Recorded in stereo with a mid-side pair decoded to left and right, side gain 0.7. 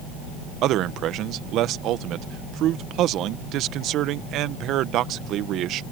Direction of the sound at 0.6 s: 55° right.